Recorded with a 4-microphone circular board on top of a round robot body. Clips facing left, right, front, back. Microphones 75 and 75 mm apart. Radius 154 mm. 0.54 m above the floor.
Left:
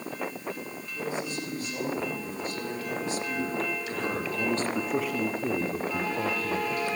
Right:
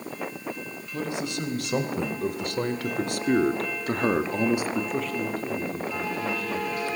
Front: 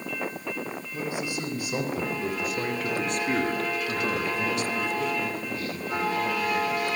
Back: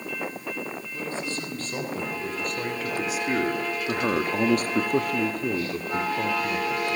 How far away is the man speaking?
About 5 m.